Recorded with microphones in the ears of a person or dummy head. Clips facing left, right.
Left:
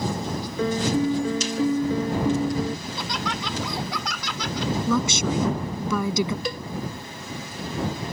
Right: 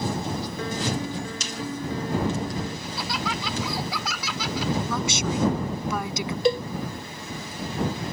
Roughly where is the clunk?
No clunk in this recording.